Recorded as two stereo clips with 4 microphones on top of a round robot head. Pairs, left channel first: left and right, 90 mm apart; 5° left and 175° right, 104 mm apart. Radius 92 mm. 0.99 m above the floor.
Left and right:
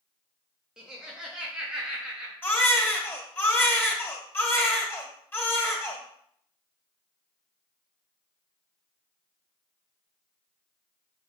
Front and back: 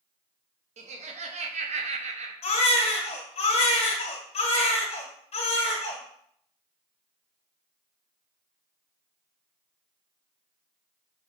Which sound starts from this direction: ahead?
A baby crying, at 2.4 s.